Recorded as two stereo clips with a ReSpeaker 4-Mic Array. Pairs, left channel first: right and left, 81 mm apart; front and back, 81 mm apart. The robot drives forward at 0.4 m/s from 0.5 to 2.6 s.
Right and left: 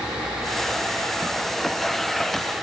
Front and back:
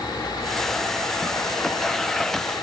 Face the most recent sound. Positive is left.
No sound to turn to.